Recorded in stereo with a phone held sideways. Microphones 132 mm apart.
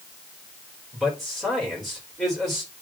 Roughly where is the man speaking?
Centre.